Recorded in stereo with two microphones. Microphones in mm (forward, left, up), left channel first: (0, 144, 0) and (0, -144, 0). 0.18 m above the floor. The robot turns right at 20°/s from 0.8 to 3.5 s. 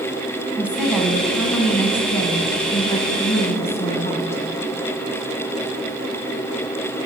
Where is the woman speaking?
10° right, 1.4 m; by 4.4 s 45° left, 1.4 m.